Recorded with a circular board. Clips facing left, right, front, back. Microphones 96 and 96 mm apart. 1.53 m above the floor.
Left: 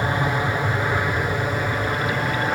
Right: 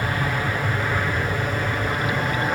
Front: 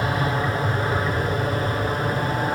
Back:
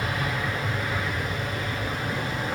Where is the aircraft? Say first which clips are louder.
Left 2 dB, front 5 dB; 30° left; by 2.6 s 5° left.